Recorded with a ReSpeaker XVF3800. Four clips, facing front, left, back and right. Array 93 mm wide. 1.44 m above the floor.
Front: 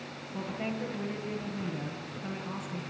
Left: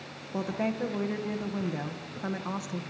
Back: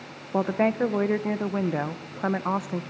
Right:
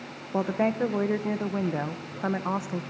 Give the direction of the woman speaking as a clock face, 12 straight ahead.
5 o'clock.